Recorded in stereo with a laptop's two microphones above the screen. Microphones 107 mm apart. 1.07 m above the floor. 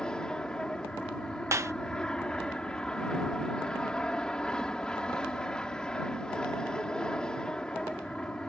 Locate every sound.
0.0 s an aircraft: 5° left (ahead or behind)
1.5 s a clap: 25° right (ahead or behind)